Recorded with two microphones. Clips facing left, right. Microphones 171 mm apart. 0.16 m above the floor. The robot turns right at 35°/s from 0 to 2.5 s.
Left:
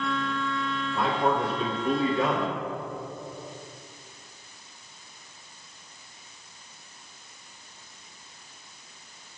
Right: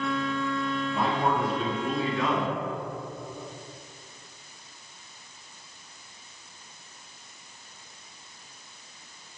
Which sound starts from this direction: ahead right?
A man speaking, at 0.9 s.